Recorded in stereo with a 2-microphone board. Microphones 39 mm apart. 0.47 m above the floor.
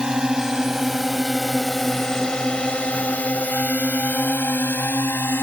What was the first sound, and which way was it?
A drone, 20° right (ahead or behind).